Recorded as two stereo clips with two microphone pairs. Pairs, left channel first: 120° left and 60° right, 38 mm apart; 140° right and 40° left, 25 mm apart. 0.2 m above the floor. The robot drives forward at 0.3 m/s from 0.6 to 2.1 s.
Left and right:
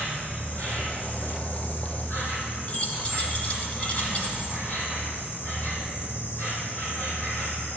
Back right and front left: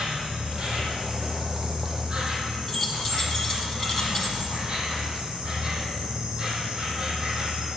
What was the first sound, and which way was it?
An insect, 80° left.